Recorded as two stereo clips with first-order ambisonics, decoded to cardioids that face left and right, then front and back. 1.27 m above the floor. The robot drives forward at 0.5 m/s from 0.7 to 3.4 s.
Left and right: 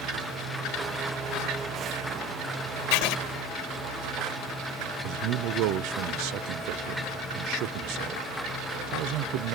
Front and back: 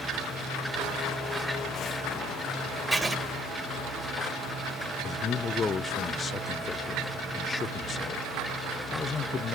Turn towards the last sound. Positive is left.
turn(degrees=-70)